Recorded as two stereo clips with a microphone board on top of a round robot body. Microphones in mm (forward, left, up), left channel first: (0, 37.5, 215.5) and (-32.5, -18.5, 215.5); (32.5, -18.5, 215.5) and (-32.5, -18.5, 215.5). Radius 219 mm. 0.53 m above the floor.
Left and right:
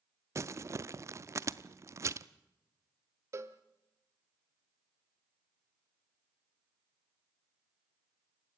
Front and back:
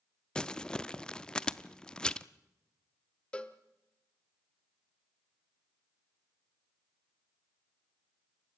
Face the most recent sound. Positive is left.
turn(degrees=-75)